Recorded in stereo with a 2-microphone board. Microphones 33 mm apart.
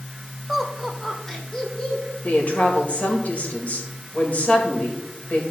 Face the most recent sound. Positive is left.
turn(degrees=50)  # may be behind; listen again after turning